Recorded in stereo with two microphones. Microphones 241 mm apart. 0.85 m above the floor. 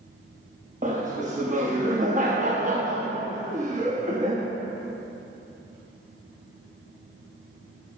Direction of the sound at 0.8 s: 30° right (ahead or behind).